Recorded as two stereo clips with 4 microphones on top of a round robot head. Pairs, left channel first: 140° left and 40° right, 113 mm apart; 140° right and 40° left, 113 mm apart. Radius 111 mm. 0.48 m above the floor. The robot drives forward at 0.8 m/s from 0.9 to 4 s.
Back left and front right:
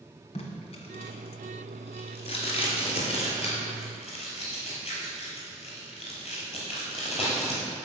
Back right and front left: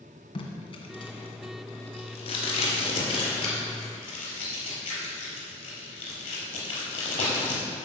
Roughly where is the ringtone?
No ringtone in this recording.